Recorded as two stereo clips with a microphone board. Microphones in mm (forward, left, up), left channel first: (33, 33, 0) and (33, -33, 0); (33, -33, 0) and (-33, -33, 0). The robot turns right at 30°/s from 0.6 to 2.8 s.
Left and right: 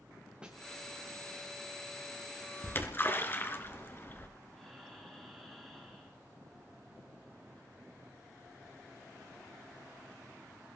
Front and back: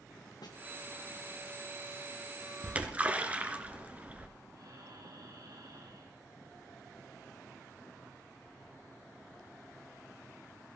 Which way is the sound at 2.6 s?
120° left.